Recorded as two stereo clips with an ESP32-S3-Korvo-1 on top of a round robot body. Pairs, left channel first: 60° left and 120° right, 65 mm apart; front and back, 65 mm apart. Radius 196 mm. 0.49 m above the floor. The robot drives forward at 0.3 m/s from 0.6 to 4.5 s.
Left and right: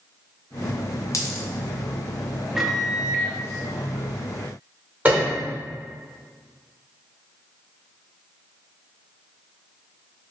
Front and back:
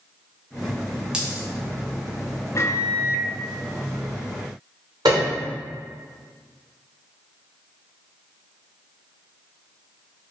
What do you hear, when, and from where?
1.1 s a dropped coin: 105° left, 0.6 m; by 1.4 s 110° left, 0.6 m
2.5 s a microwave: 35° right, 0.7 m; by 3.3 s 55° right, 0.6 m
5.0 s a piano: 175° left, 1.0 m